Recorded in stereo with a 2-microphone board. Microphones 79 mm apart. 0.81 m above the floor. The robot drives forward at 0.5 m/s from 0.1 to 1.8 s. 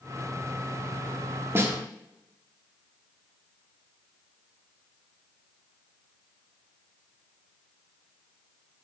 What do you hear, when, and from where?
1.6 s a snare drum: 35° right (ahead or behind), 1.4 m; by 1.8 s 30° right (ahead or behind), 1.5 m